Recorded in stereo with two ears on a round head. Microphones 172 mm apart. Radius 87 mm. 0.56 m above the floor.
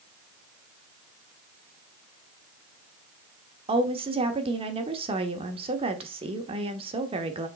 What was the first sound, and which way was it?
A woman speaking, 30° right (ahead or behind).